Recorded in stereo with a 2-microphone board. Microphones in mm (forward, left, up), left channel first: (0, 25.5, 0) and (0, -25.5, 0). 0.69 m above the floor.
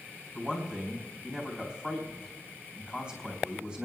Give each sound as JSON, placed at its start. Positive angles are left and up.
{"t": 0.3, "sound": "a man speaking", "side_deg": -20, "distance_m": 3.5}